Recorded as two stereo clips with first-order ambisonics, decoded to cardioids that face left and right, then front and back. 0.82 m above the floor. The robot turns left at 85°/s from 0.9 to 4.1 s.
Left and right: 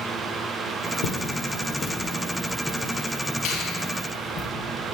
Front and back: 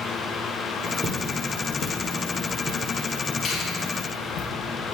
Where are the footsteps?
100° left, 1.5 m; by 4.5 s 35° left, 2 m.